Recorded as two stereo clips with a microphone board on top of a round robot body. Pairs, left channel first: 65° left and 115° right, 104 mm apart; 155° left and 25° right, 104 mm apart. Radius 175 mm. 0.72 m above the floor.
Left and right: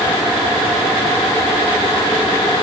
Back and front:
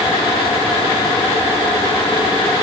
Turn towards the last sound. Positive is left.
No sound to turn to.